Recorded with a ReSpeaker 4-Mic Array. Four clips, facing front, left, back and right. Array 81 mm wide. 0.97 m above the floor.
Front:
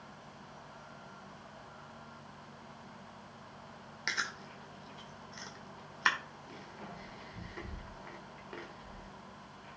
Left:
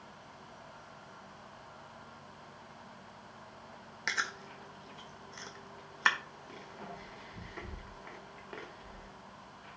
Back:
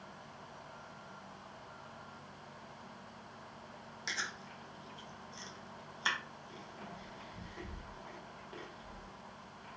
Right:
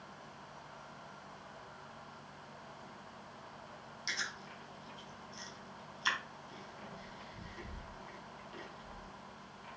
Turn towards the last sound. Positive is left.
turn(degrees=60)